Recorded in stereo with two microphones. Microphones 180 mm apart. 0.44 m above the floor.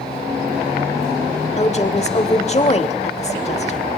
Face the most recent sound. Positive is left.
turn(degrees=35)  # may be behind; listen again after turning